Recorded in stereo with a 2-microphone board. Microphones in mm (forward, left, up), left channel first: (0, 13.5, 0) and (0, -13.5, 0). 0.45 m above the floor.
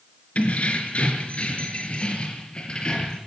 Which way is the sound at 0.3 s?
50° left (ahead or behind).